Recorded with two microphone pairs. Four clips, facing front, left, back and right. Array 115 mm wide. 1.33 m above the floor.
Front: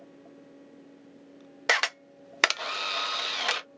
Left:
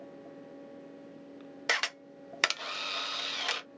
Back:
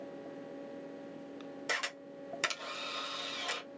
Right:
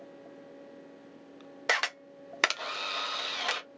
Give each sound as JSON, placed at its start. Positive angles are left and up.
{"t": 1.7, "sound": "a camera shutter", "azimuth_deg": -10, "distance_m": 0.6}